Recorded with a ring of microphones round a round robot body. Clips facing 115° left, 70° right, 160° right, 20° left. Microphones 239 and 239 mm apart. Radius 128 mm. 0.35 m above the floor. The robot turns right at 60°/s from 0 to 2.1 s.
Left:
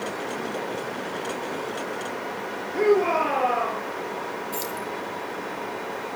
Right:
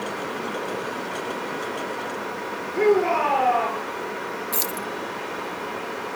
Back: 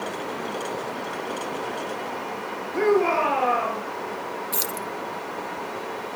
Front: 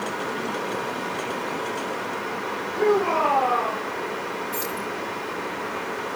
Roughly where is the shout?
Behind.